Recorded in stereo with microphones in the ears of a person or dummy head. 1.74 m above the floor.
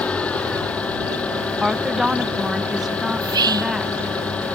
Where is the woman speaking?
Centre (ahead or behind).